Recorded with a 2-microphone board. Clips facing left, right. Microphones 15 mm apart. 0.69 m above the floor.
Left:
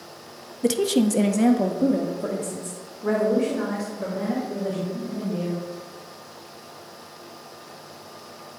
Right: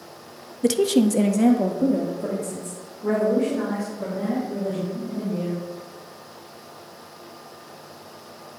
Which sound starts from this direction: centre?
A woman speaking, at 0.6 s.